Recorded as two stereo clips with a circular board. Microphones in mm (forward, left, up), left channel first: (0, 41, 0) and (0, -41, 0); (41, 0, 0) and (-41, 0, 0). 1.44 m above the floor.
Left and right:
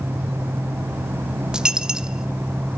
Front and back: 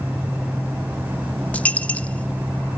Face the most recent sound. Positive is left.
turn(degrees=-30)